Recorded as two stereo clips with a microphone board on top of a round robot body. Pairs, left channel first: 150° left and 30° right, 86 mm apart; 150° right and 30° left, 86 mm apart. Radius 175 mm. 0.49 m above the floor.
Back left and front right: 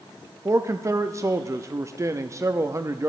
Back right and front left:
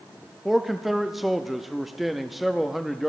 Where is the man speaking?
60° right, 0.8 m.